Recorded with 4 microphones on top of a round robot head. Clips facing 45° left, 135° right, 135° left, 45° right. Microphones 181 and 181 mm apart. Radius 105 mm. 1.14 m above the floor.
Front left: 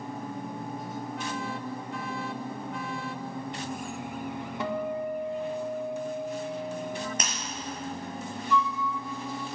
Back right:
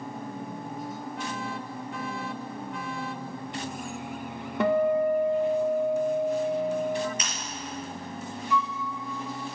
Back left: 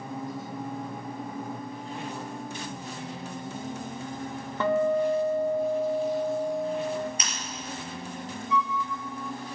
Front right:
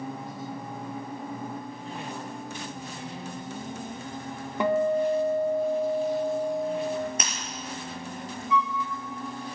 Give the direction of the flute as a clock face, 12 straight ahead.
2 o'clock.